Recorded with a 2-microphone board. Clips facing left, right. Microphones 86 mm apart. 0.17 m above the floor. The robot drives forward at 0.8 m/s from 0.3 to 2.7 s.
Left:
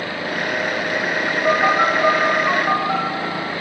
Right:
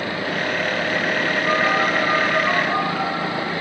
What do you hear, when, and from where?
1.4 s a phone buzzing: 40° left (ahead or behind), 2.5 m; by 3.0 s 30° left (ahead or behind), 3.5 m